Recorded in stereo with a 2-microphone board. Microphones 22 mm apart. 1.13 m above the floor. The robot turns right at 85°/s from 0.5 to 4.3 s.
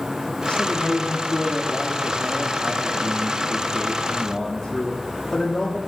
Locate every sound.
0.5 s a man speaking: 65° left, 2.5 m; by 5.8 s 30° left, 2.5 m